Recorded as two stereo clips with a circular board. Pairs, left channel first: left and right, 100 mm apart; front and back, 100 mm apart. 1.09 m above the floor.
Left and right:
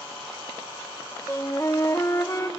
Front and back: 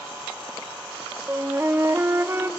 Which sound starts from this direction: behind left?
A flute, at 1.3 s.